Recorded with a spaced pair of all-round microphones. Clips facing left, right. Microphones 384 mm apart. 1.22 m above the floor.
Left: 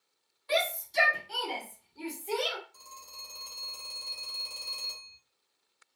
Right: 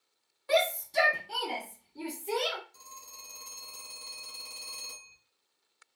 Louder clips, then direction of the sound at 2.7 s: Left 1 dB; 35° right (ahead or behind).